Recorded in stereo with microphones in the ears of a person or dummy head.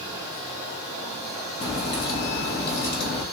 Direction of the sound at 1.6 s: 60° left (ahead or behind).